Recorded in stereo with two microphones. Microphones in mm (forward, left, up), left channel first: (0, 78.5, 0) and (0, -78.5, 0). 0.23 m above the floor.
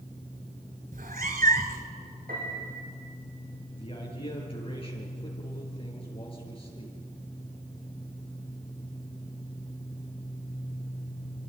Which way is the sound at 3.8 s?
35° left (ahead or behind).